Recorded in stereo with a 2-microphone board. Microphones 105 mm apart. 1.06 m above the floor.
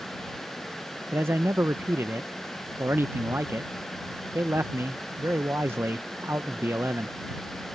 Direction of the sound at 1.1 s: 25° right (ahead or behind).